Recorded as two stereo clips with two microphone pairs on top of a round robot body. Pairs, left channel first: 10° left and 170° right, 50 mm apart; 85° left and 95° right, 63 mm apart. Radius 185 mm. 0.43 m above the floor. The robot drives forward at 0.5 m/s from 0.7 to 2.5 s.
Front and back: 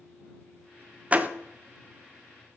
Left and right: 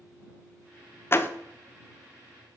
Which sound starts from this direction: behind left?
A door slam, at 1.1 s.